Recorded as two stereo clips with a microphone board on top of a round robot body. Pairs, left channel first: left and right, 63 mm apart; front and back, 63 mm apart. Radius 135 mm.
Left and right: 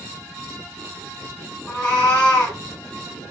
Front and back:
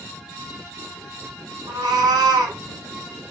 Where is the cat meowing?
160° left, 1.1 m.